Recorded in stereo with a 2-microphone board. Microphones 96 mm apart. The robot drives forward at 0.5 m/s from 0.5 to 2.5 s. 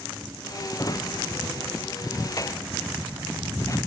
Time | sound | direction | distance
0.8 | a drawer | 40° left (ahead or behind) | ?